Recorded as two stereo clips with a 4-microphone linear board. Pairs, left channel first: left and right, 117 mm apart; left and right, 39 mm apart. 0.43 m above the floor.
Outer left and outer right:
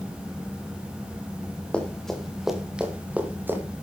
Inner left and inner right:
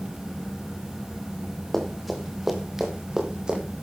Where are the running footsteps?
10° left (ahead or behind), 3.5 m; by 3.6 s 20° right (ahead or behind), 4.5 m.